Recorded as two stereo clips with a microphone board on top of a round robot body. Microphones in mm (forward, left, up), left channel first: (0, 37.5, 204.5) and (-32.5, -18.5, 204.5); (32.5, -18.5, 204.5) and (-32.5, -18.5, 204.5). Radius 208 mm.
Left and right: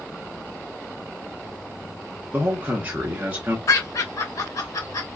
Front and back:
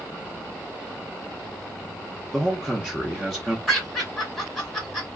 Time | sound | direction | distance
2.3 | a man speaking | 85° right | 1.2 m
3.7 | laughter | 80° left | 2.5 m